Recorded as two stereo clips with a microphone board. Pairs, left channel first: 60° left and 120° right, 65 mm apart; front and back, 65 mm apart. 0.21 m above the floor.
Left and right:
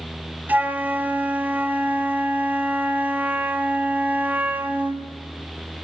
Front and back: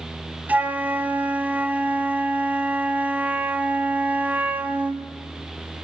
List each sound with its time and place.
0.5 s a flute: 145° right, 1.0 m